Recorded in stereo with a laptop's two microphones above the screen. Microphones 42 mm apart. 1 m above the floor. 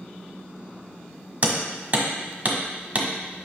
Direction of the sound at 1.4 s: 45° right (ahead or behind).